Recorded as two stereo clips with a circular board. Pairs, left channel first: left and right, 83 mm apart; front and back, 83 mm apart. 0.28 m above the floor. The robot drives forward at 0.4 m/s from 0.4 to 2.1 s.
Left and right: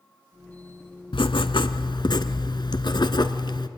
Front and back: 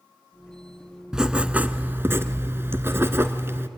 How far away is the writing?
About 0.9 m.